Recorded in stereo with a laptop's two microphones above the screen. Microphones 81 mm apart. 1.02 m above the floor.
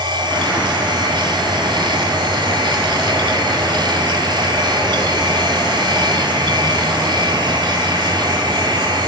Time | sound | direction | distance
0.0 | a machine running | 80° right | 2.5 m